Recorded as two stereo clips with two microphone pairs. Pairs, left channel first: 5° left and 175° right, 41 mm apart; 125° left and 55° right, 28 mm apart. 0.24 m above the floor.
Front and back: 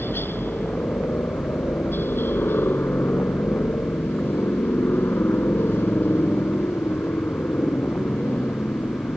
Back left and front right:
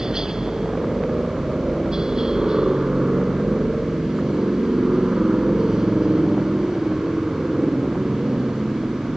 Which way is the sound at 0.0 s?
15° left.